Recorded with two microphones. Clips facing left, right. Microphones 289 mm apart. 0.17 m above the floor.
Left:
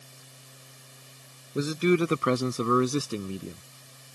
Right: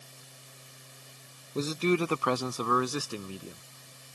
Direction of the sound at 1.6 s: 10° left (ahead or behind).